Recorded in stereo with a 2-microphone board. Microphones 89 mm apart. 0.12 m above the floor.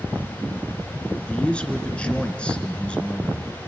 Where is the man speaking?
10° left (ahead or behind), 1.8 m.